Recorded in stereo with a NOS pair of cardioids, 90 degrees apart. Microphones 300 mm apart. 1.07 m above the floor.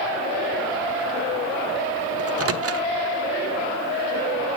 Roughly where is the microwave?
Ahead right.